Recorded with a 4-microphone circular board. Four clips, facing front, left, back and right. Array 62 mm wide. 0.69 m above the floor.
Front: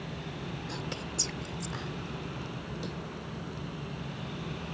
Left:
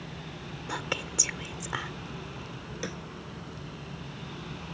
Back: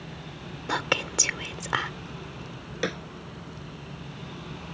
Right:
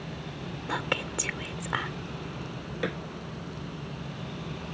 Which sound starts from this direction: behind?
Whispering, at 0.7 s.